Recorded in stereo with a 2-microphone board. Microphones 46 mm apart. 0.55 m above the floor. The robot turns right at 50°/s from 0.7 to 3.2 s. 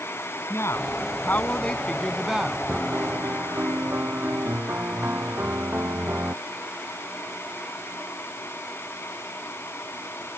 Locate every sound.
0.5 s a woman speaking: 105° left; by 2.6 s 160° right
2.7 s a piano: 25° right (ahead or behind); by 6.3 s 50° right (ahead or behind)